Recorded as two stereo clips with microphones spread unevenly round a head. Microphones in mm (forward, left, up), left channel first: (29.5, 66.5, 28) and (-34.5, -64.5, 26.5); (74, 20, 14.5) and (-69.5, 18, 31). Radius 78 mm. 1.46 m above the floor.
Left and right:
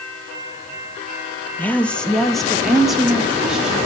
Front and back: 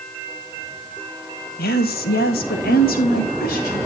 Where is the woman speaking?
15° right, 1.1 m; by 3.8 s 30° right, 3 m.